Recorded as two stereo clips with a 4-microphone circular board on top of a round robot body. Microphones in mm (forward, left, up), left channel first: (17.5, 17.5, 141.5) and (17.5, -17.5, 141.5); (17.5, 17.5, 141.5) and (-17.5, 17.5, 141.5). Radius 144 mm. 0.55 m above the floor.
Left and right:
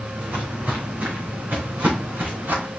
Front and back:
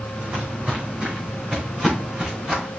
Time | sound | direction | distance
0.2 | footsteps | 135° right | 3.5 m